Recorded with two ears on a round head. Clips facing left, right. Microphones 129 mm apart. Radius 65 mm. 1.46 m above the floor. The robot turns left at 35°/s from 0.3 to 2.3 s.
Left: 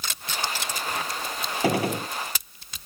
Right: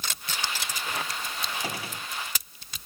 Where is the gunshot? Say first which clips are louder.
Left 12 dB; 55° left (ahead or behind); by 2.1 s 35° left (ahead or behind).